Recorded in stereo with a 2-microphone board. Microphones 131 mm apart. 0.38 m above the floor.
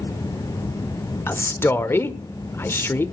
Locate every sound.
1.3 s a man speaking: 20° left (ahead or behind), 0.8 m